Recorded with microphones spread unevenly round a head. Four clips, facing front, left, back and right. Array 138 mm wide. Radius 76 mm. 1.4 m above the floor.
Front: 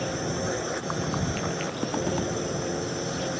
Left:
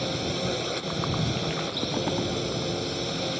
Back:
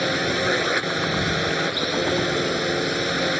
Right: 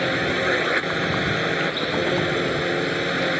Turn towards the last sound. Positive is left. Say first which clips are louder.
# right 7 dB, back 6 dB
turn(degrees=-135)